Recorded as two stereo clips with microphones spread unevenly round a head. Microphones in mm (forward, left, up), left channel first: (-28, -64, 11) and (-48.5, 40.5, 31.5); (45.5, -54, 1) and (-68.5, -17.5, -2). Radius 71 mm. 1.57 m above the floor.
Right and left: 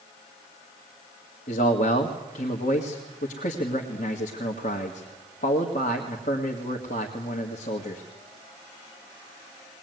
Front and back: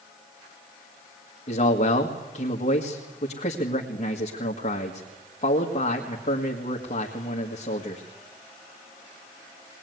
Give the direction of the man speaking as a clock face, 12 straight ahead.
2 o'clock.